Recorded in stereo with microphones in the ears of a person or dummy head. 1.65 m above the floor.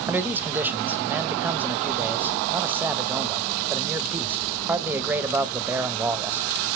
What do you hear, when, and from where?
0.1 s a man speaking: 10° right (ahead or behind), 0.6 m